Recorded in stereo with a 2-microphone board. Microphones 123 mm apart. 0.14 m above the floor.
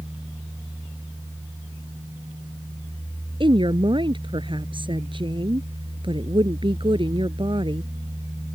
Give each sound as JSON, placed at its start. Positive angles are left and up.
{"t": 3.4, "sound": "a woman speaking", "side_deg": -45}